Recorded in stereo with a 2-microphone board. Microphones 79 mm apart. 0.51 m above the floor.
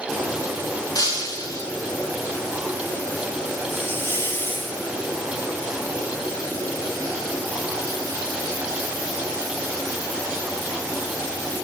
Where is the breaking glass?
55° left (ahead or behind), 2.5 m.